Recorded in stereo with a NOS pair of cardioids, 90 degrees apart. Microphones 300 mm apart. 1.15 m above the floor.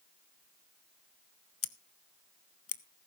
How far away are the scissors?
About 0.9 m.